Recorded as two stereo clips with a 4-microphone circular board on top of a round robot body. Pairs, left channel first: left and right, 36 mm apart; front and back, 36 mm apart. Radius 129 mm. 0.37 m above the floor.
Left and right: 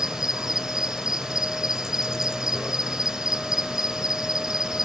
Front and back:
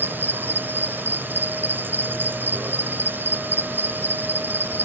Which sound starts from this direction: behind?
An insect, at 0.0 s.